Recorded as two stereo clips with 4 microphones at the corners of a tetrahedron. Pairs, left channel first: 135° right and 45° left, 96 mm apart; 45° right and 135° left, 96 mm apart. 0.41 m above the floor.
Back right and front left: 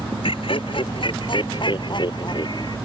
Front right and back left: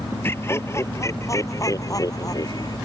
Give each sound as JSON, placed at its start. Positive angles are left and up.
{"t": 0.2, "sound": "laughter", "azimuth_deg": -110}